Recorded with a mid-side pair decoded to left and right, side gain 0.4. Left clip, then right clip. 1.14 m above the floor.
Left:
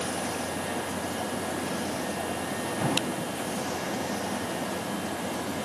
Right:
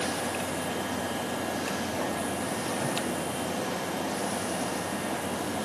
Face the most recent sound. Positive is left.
No sound to turn to.